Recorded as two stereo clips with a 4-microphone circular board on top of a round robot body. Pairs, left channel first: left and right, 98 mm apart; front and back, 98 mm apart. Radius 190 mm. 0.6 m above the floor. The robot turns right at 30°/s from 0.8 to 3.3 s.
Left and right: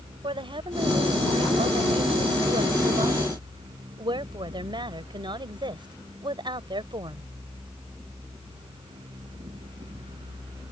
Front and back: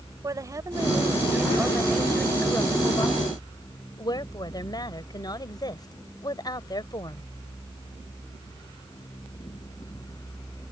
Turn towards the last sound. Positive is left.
turn(degrees=-50)